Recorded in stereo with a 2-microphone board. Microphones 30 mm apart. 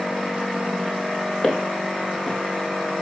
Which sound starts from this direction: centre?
Footsteps, at 1.4 s.